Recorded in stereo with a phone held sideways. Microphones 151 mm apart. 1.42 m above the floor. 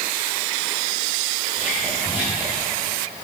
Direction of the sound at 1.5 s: 15° right (ahead or behind).